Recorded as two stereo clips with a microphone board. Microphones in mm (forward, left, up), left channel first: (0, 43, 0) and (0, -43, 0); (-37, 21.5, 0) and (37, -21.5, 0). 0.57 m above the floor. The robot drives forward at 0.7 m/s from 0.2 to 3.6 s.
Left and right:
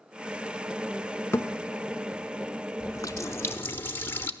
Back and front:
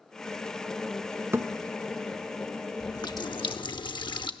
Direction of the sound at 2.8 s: 120° left.